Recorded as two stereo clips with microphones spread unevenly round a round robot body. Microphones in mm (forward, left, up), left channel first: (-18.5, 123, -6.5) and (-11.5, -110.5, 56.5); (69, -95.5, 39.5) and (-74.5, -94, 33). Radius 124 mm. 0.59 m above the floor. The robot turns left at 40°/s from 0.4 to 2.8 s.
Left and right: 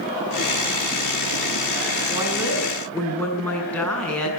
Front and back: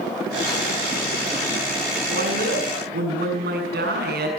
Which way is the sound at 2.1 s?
155° right.